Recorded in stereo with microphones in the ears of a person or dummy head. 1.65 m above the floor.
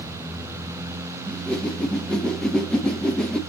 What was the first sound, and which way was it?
A whoosh, 5° left (ahead or behind).